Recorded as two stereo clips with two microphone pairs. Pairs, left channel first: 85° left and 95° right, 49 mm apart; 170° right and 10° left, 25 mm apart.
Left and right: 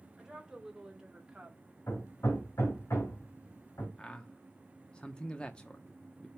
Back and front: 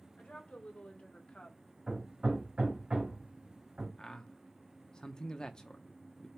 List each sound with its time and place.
0.2 s a woman speaking: straight behind, 2.5 m; by 1.6 s 160° right, 1.5 m
1.9 s hammering: 60° left, 3 m
4.0 s a man speaking: 145° left, 0.8 m